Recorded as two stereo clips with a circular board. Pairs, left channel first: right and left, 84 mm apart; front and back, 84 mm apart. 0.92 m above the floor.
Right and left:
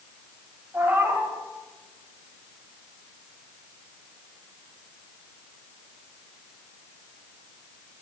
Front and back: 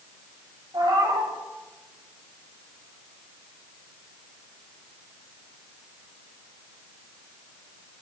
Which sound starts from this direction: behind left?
A cat meowing, at 0.7 s.